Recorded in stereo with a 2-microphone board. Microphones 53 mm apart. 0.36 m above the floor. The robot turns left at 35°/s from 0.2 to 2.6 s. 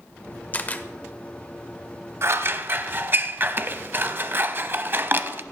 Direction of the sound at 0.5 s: 30° left (ahead or behind).